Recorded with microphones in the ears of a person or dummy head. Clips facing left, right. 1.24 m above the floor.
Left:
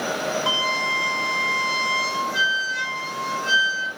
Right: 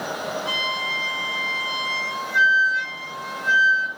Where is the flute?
70° left (ahead or behind), 1.5 m.